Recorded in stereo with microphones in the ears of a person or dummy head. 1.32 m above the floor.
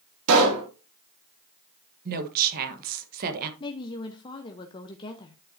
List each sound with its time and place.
0.3 s a pop: 75° right (ahead or behind), 2.0 m
2.0 s a woman speaking: 50° right (ahead or behind), 1.1 m
3.6 s a woman speaking: 25° left (ahead or behind), 0.8 m